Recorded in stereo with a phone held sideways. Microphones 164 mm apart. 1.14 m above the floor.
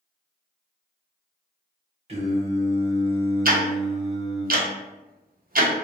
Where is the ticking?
60° right (ahead or behind), 0.5 m.